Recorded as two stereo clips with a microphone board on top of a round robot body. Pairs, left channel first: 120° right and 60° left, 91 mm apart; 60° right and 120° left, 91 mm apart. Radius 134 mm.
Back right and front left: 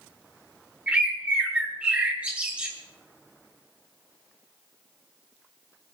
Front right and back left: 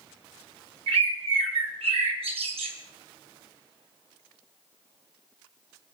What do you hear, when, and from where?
0.9 s a bird: 135° left, 1.7 m